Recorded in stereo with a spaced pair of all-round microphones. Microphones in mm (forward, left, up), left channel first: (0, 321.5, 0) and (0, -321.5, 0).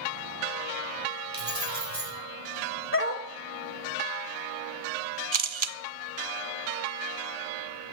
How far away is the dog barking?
About 1.1 m.